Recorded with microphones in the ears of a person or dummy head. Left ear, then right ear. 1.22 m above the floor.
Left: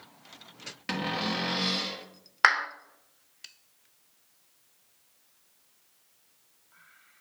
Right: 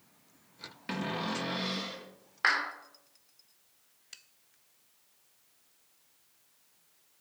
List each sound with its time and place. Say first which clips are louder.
0.9 s a cupboard door: left 4 dB; 10° left (ahead or behind), 0.9 m
2.4 s a clap: left 5 dB; 40° left (ahead or behind), 0.6 m